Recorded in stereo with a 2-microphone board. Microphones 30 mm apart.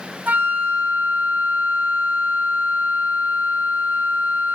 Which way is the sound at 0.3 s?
75° right (ahead or behind).